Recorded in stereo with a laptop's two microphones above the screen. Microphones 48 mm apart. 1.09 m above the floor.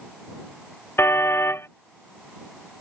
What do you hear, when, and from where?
1.0 s a car horn: 65° left (ahead or behind)